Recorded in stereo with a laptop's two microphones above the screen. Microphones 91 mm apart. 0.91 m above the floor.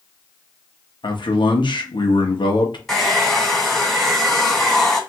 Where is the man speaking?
65° left (ahead or behind), 0.9 m.